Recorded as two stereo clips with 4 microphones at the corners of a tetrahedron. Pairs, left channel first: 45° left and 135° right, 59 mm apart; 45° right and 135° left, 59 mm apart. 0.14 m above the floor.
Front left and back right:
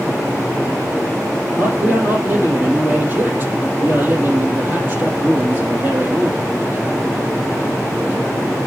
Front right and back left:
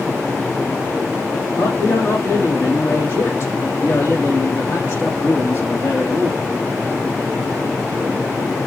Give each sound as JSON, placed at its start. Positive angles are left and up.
{"t": 1.6, "sound": "a man speaking", "azimuth_deg": -80, "distance_m": 4.0}